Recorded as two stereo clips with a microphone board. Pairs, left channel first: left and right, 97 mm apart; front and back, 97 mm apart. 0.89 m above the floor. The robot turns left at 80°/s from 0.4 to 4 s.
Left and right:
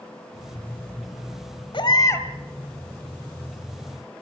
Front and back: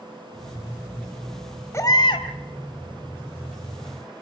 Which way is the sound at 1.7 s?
60° left.